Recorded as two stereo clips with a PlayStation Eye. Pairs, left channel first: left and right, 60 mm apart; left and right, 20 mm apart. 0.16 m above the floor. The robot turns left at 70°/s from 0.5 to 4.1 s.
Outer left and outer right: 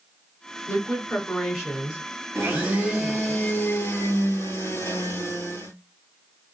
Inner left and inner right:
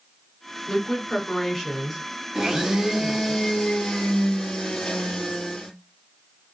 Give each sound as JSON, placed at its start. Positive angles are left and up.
{"t": 0.7, "sound": "a woman speaking", "azimuth_deg": 50, "distance_m": 1.7}
{"t": 2.4, "sound": "a blender", "azimuth_deg": -125, "distance_m": 1.8}